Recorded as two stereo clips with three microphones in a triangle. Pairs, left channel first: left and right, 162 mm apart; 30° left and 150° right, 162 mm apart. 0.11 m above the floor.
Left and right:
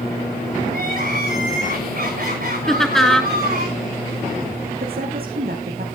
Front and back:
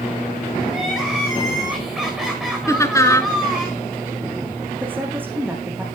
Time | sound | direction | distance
0.7 | crying | 65° right | 5.5 m
2.7 | laughter | 10° left | 1.2 m
4.8 | a woman speaking | 70° right | 5.5 m